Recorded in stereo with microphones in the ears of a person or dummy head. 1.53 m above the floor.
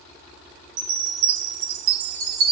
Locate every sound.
0.8 s a chime: 45° right (ahead or behind), 0.8 m